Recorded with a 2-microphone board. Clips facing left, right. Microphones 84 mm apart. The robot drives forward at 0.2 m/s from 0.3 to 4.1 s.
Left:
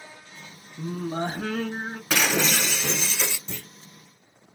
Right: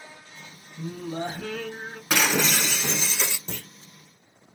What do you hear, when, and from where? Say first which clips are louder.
0.8 s singing: left 3 dB; 50° left (ahead or behind), 0.6 m
2.1 s breaking glass: even; 10° right (ahead or behind), 0.8 m
3.5 s a clunk: right 1 dB; 70° right (ahead or behind), 0.9 m